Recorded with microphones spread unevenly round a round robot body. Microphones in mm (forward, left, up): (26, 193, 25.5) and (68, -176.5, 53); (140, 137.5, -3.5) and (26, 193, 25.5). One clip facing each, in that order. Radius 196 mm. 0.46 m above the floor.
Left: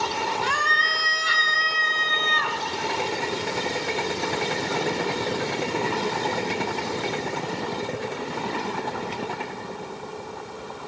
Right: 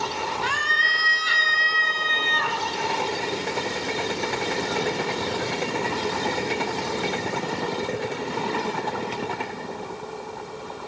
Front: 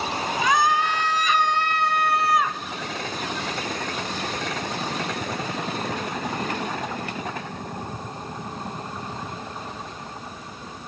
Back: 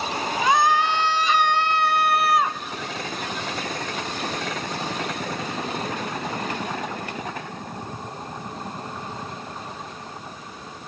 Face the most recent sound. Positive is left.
turn(degrees=85)